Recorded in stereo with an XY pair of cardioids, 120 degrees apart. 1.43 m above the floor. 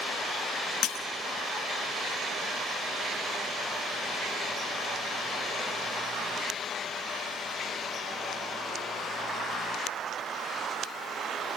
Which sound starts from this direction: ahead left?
Breaking glass, at 0.8 s.